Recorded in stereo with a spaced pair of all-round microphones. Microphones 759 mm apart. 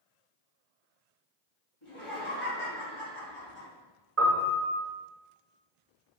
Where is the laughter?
75° left (ahead or behind), 1.8 m.